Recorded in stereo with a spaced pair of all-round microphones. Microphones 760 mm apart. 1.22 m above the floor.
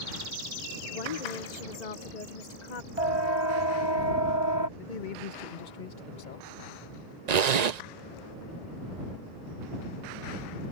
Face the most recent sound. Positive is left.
turn(degrees=-60)  # may be behind; listen again after turning